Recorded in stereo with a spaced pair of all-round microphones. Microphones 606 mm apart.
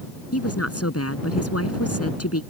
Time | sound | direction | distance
0.3 | a woman speaking | 25° left (ahead or behind) | ?